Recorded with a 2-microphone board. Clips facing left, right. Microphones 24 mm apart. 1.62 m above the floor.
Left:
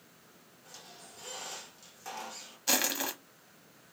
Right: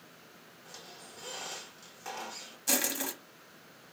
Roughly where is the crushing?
Left.